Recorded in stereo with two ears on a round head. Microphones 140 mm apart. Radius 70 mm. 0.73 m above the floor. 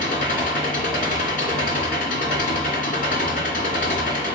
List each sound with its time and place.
0.0 s an engine running: 60° left (ahead or behind), 2.5 m